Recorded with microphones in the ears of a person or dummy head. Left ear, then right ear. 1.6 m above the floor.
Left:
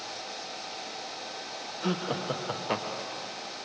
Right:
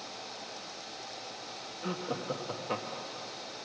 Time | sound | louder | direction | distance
1.8 | laughter | left 4 dB | 30° left (ahead or behind) | 0.7 m